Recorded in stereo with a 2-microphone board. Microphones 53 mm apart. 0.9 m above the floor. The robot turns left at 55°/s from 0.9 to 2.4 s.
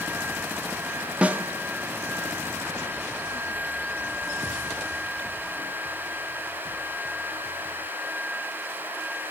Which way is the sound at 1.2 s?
25° right (ahead or behind).